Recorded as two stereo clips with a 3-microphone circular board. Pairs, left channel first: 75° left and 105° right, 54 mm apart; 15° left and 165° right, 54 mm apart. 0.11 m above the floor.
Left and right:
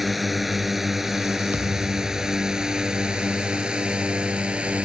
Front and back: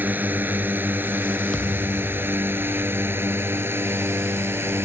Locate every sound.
0.0 s a drone: 165° left; by 4.9 s 170° right
1.5 s a thud: 60° right